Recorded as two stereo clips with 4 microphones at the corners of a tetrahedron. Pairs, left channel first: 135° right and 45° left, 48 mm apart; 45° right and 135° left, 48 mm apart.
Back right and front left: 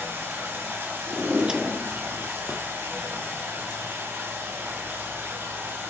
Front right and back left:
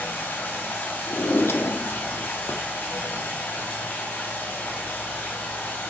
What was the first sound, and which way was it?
Running water, 15° left.